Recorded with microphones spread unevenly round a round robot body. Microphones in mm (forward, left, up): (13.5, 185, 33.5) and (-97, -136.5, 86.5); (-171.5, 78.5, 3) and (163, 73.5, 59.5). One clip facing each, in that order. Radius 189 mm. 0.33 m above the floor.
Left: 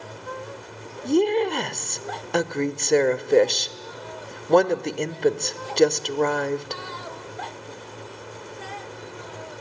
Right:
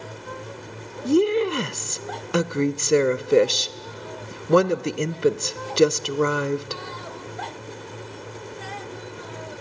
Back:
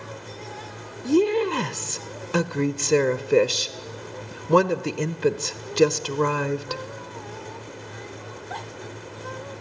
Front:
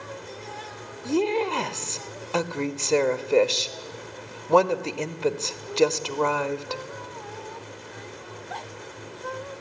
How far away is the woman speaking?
About 0.9 m.